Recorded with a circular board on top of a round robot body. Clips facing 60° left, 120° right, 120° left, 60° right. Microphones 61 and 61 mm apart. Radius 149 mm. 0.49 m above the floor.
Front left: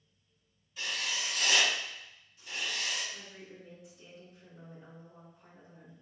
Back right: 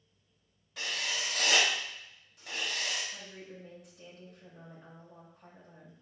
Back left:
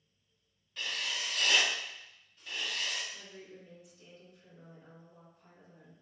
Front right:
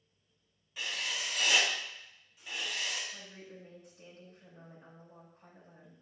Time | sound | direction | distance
0.8 | writing | 140° right | 2.5 m
3.1 | a woman speaking | 100° right | 4 m